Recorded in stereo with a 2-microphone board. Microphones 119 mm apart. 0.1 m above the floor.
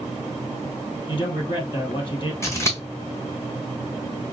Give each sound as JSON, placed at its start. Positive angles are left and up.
{"t": 1.1, "sound": "a man speaking", "side_deg": 40, "distance_m": 2.5}
{"t": 2.4, "sound": "scissors", "side_deg": 25, "distance_m": 1.4}